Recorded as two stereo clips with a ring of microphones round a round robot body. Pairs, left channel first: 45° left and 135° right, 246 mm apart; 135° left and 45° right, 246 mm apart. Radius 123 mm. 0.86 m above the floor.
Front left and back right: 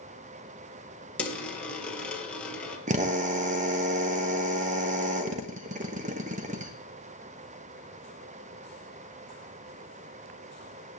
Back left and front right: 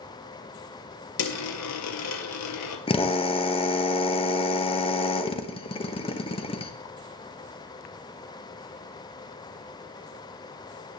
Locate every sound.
1.2 s a dropped coin: 130° left, 1.6 m
2.9 s a drill: 170° right, 1.1 m